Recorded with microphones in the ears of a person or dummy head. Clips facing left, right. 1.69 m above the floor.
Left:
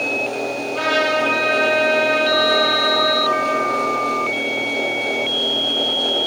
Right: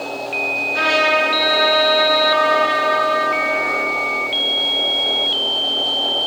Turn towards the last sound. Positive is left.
turn(degrees=-20)  # may be behind; listen again after turning